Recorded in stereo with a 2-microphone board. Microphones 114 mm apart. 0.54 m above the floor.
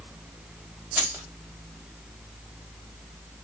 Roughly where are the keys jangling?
Right.